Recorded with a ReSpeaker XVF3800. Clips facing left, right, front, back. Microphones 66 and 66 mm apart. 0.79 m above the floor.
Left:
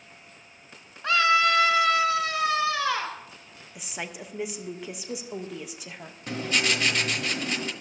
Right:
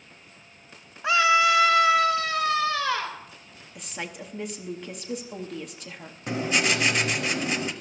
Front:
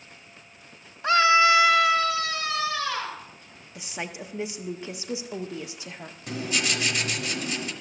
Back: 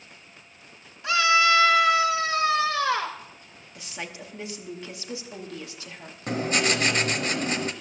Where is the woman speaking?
20° left, 0.7 m.